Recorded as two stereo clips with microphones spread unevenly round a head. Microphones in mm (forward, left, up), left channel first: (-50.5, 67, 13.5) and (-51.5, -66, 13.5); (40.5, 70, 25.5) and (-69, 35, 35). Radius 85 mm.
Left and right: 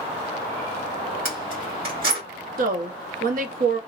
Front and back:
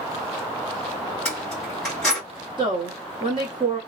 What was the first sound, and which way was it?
Keys jangling, 70° right.